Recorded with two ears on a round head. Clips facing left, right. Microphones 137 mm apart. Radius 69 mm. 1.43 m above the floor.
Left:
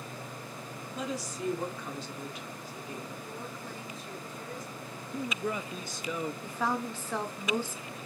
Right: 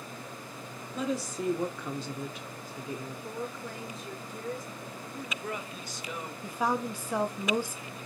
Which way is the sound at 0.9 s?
80° right.